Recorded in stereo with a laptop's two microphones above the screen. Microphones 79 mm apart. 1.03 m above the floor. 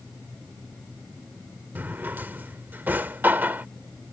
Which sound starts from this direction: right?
A drawer, at 1.8 s.